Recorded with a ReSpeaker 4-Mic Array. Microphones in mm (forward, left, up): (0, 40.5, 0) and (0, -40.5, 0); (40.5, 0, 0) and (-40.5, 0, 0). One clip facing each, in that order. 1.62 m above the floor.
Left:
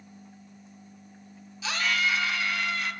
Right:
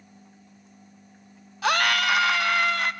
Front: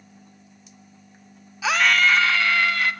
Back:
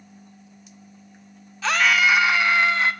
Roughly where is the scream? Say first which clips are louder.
Right 6 dB, even; right.